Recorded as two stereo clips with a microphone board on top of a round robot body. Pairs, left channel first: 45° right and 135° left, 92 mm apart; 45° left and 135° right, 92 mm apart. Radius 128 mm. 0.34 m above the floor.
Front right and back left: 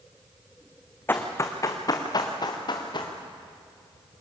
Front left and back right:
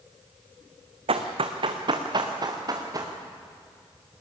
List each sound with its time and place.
1.1 s running footsteps: 115° right, 1.4 m; by 3.1 s 85° right, 3 m